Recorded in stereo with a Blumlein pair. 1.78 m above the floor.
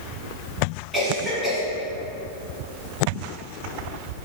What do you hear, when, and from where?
0.9 s a cough: 5° left, 1.1 m